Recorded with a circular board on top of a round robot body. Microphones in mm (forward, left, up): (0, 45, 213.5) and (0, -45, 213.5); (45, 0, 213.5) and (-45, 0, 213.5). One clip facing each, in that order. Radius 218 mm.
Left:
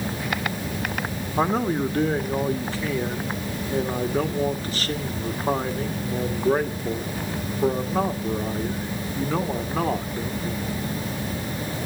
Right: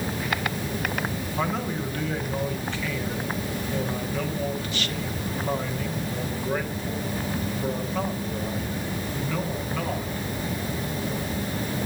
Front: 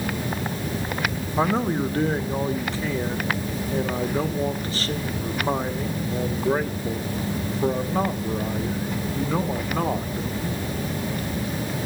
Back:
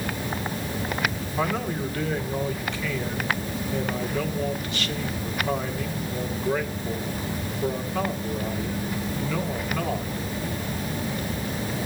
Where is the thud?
No thud in this recording.